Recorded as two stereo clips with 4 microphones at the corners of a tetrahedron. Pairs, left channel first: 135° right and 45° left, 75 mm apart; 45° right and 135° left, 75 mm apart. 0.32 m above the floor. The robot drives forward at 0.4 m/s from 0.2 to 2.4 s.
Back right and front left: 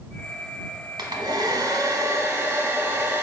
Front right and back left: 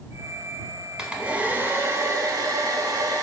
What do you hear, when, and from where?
1.0 s a hair dryer: 55° left, 0.7 m; by 3.2 s 105° left, 0.6 m